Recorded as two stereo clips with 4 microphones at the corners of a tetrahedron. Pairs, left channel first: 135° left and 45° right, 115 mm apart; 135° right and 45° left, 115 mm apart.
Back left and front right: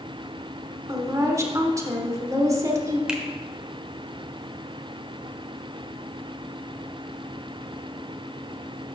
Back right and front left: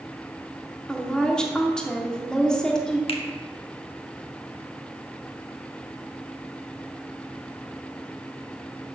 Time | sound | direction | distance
0.9 | a woman speaking | 60° right | 1.0 m
3.1 | a finger snap | 125° right | 0.9 m